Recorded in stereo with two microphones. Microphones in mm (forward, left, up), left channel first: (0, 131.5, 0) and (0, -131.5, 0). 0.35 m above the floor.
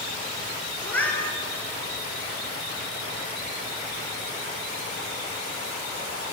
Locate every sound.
0.8 s a cat meowing: 5° left (ahead or behind), 1.1 m